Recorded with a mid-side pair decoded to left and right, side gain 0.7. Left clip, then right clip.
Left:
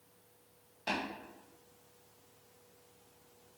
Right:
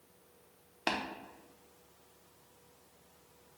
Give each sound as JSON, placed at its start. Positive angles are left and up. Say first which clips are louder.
{"t": 0.9, "sound": "tapping", "louder": "right 2 dB", "azimuth_deg": -55, "distance_m": 1.2}